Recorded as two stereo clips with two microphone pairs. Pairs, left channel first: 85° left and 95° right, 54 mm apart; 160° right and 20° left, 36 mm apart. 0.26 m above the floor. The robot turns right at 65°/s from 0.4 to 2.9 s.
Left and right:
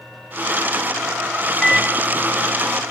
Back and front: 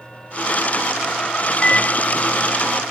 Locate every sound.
1.6 s a microwave: 155° left, 0.7 m; by 2.8 s 125° right, 0.7 m